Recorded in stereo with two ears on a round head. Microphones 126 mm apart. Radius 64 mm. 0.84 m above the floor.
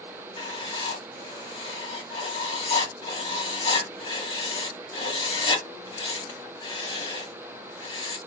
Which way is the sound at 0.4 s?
35° left (ahead or behind).